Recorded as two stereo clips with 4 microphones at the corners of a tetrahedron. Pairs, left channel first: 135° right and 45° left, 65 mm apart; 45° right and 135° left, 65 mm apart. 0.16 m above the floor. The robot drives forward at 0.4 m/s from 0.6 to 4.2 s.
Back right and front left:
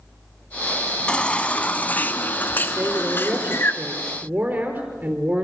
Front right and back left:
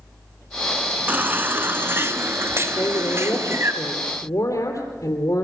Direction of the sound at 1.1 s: 165° left.